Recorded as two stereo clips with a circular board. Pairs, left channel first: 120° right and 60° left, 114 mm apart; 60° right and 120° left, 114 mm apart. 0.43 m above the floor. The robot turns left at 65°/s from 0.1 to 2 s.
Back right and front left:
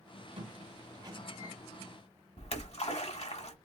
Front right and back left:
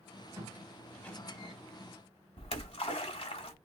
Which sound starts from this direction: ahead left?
A squeak, at 0.4 s.